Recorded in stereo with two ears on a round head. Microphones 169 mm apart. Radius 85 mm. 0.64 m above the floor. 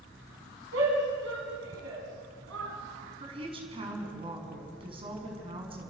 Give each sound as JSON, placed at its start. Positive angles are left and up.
{"t": 0.7, "sound": "a shout", "side_deg": -80, "distance_m": 5.0}
{"t": 3.2, "sound": "a woman speaking", "side_deg": -30, "distance_m": 6.0}